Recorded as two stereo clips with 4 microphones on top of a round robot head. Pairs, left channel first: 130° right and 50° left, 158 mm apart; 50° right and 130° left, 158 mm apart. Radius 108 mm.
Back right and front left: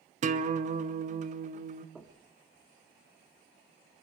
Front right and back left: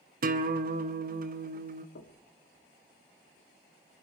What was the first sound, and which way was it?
A guitar, 95° left.